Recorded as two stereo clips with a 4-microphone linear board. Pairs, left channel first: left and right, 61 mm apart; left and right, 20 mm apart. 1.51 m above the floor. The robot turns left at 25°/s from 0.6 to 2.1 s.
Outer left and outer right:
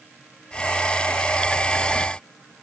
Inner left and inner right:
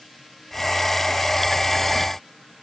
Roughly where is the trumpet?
No trumpet in this recording.